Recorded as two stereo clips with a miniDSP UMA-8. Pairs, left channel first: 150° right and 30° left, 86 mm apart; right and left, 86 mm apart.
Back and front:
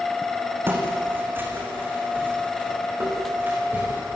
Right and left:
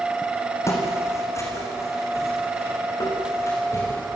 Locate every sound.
0.7 s footsteps: 35° right, 4 m; by 4.0 s 40° right, 6 m